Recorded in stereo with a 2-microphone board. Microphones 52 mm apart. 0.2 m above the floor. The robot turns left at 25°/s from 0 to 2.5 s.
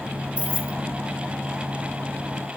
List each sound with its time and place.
0.4 s keys jangling: 25° right (ahead or behind), 0.8 m; by 0.8 s 30° right (ahead or behind), 0.8 m